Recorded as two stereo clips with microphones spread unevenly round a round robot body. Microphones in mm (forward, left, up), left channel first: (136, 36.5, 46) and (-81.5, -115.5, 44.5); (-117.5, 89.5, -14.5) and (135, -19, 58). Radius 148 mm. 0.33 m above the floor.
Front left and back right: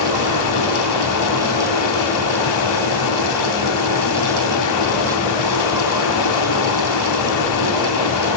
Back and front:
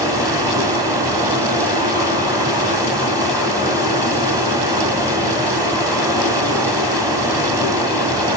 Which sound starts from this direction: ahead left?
Running water, at 0.0 s.